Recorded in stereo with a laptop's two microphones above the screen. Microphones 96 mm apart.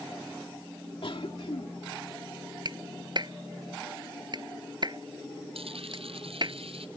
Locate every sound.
1.0 s a cough: 65° left (ahead or behind)
2.6 s a clap: 50° right (ahead or behind)
5.5 s a dropped coin: 80° right